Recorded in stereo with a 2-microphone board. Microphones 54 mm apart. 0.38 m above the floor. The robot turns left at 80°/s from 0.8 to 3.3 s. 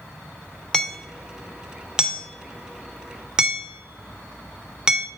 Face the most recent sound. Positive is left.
turn(degrees=-10)  # may be behind; listen again after turning